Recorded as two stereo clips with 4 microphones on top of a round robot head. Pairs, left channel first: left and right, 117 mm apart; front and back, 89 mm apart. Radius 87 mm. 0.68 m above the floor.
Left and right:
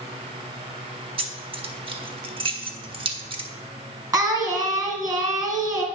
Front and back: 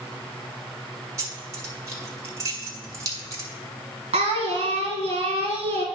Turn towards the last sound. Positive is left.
turn(degrees=-145)